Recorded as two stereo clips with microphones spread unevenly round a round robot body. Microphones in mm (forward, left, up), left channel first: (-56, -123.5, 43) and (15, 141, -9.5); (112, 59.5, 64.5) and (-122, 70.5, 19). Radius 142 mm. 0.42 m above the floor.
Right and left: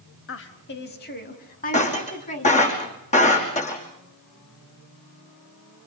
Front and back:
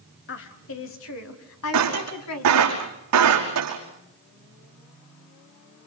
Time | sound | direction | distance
0.3 | a woman speaking | 55° right | 2.5 m
1.7 | breaking glass | 170° right | 5.5 m